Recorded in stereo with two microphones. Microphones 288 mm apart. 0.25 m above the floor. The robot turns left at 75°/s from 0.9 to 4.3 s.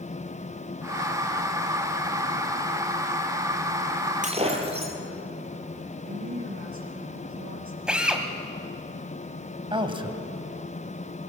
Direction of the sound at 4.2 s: 25° right (ahead or behind).